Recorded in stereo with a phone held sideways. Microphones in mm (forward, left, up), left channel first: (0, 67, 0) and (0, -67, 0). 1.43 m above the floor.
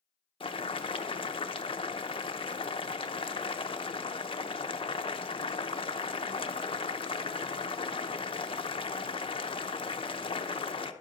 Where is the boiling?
45° left (ahead or behind), 0.7 m.